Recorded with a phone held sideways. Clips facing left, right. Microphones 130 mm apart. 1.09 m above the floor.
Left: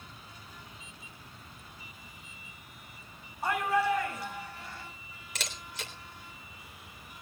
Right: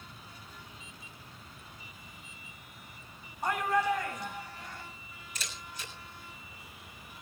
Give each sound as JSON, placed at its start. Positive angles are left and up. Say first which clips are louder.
{"t": 3.4, "sound": "a shout", "louder": "left 1 dB", "side_deg": 5, "distance_m": 7.0}
{"t": 5.3, "sound": "a camera shutter", "louder": "left 3 dB", "side_deg": 90, "distance_m": 3.5}